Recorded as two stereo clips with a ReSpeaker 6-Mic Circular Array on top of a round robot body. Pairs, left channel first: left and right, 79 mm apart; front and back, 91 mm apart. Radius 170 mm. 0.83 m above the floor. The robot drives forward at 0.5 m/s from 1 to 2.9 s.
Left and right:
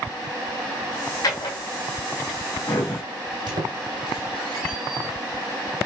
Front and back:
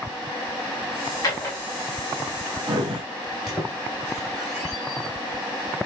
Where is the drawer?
50° left, 0.7 m; by 3.0 s 140° left, 0.8 m.